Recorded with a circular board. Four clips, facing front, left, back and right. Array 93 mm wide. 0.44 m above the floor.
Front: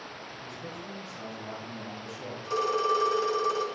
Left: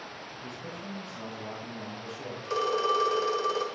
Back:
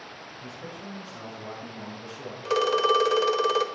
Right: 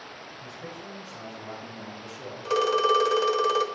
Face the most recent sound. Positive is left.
turn(degrees=-155)